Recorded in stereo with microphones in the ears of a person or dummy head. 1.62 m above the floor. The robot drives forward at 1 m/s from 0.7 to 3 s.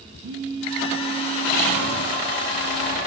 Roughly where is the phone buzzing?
Right.